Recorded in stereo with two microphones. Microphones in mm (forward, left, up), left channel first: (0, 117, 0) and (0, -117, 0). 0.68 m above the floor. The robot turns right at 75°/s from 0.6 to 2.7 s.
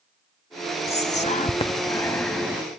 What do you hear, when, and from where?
0.9 s whispering: 25° left (ahead or behind), 0.5 m; by 2.6 s 10° right (ahead or behind), 0.5 m